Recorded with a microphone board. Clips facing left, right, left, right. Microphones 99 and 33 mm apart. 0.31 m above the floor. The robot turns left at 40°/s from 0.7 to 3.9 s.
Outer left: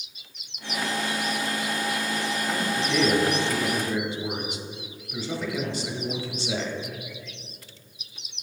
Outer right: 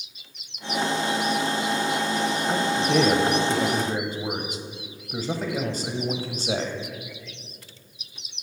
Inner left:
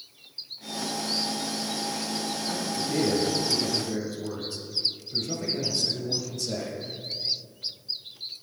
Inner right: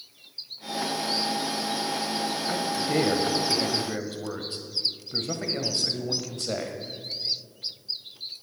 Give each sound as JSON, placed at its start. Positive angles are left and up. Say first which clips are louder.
{"t": 2.5, "sound": "a man speaking", "louder": "outer right 4 dB, inner right 3 dB", "azimuth_deg": -50, "distance_m": 1.1}